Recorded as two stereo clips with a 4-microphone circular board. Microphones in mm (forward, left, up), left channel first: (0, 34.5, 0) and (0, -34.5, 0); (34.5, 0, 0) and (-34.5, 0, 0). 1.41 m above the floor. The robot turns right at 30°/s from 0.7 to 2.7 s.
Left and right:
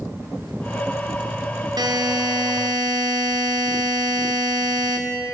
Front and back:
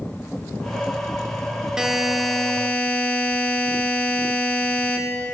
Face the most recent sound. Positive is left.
turn(degrees=-70)